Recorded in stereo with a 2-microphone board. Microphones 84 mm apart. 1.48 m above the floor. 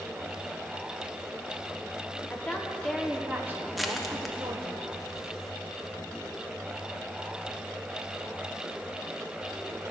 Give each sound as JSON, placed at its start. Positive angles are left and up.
{"t": 2.3, "sound": "a woman speaking", "side_deg": 20, "distance_m": 1.7}
{"t": 3.8, "sound": "crushing", "side_deg": 0, "distance_m": 1.0}